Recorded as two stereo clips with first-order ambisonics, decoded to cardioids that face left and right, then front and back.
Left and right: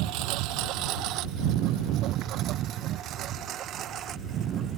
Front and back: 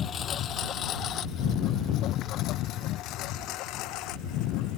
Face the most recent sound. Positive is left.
turn(degrees=-35)